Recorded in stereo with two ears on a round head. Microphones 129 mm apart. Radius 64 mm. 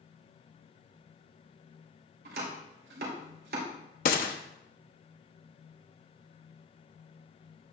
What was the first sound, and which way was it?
Chopping, 75° right (ahead or behind).